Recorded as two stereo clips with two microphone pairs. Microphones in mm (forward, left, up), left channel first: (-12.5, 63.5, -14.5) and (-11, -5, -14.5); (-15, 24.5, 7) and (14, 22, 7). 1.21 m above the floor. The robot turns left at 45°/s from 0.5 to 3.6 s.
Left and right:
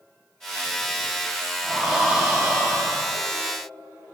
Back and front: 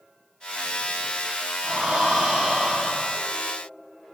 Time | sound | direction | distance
1.6 | breathing | 5° left | 0.8 m